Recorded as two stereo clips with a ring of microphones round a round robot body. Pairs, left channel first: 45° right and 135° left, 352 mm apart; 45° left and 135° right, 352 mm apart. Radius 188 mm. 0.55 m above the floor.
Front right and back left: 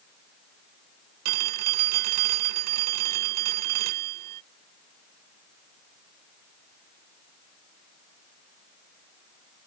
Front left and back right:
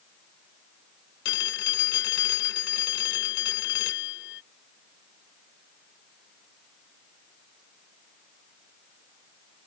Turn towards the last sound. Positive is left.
turn(degrees=105)